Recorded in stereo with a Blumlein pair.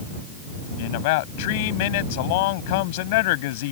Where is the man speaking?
50° left.